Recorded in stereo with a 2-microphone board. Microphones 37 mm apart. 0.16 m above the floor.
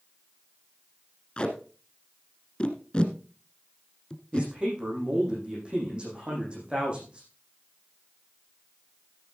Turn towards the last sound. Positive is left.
turn(degrees=-25)  # may be behind; listen again after turning